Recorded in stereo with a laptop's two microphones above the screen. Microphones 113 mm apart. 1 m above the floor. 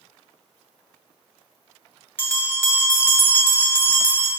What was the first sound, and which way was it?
A bell, 20° left (ahead or behind).